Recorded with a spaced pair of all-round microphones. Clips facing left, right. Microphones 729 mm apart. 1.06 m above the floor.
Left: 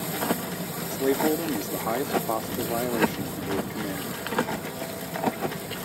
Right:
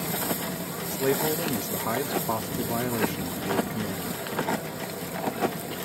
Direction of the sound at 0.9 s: 40° right (ahead or behind).